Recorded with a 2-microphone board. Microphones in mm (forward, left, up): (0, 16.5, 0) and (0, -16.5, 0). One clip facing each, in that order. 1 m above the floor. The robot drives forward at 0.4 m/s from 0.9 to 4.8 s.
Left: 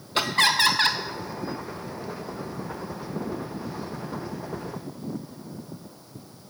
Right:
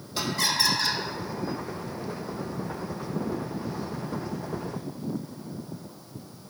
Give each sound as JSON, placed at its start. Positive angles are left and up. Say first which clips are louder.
{"t": 0.1, "sound": "laughter", "louder": "left 6 dB", "side_deg": 55, "distance_m": 0.7}